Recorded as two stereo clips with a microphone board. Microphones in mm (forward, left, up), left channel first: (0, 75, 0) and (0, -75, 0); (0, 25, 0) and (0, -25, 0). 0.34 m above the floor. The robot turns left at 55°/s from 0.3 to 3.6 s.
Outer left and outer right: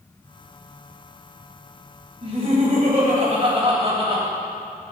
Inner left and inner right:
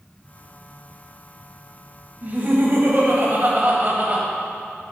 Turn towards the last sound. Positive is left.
turn(degrees=-125)